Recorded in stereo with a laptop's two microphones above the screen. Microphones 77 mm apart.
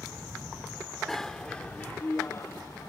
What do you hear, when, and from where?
1.1 s a bicycle bell: 5° left (ahead or behind); by 2.9 s 55° left (ahead or behind)